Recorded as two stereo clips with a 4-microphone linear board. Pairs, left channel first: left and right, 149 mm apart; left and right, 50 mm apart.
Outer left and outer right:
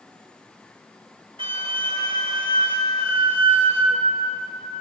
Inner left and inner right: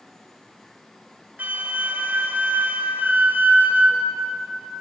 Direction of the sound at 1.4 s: 35° right (ahead or behind).